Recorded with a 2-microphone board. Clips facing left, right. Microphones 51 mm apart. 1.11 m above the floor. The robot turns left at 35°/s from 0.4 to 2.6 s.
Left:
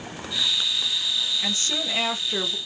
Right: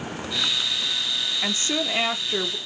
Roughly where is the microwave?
I don't hear a microwave.